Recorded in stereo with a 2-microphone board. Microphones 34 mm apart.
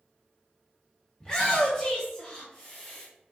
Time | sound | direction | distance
1.2 | a shout | 15° left (ahead or behind) | 1.4 m